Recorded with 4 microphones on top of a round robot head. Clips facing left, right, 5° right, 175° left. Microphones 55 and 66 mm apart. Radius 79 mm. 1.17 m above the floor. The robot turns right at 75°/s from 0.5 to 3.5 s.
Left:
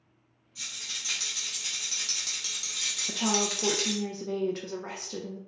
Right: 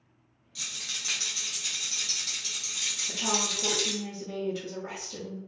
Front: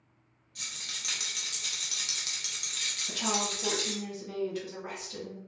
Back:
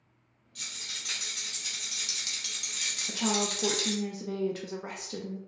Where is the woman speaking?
95° left, 0.5 m; by 5.4 s 130° left, 0.5 m.